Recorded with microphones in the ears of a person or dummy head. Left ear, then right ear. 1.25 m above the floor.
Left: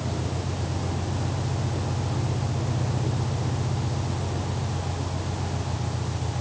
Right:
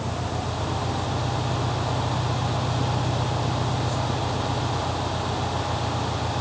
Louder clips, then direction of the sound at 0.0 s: Right 3 dB; 85° right.